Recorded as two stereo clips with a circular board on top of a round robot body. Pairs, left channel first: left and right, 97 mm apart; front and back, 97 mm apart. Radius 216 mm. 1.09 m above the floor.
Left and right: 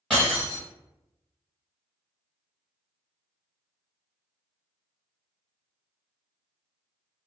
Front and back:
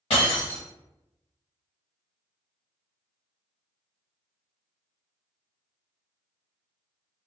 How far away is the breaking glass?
About 1.1 m.